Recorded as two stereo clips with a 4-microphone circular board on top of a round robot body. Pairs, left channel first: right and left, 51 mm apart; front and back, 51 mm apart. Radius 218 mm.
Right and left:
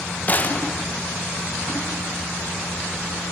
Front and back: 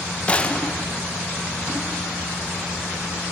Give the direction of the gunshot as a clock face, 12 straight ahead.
2 o'clock.